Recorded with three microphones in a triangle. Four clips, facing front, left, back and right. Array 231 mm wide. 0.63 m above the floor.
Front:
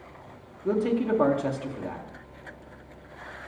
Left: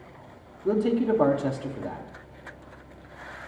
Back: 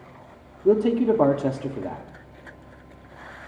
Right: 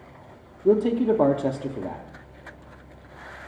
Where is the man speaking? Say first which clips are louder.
Right 4 dB, back 6 dB; 140° right, 0.8 m.